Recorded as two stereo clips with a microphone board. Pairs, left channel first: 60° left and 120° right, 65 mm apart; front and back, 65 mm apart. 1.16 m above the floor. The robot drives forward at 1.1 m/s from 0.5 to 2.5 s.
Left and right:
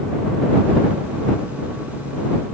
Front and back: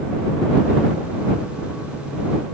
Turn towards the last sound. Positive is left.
No sound to turn to.